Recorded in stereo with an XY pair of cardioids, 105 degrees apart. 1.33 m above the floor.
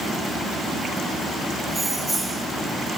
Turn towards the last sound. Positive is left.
turn(degrees=-10)